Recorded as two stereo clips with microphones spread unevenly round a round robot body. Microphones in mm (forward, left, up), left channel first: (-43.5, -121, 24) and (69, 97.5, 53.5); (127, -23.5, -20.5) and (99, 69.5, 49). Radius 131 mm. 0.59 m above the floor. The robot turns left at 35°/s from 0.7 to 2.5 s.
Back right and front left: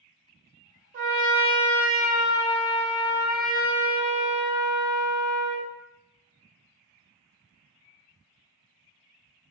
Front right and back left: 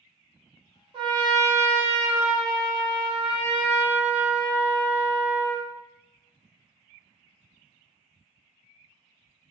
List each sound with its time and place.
0.9 s a trumpet: 30° left, 1.2 m; by 5.7 s 25° right, 1.2 m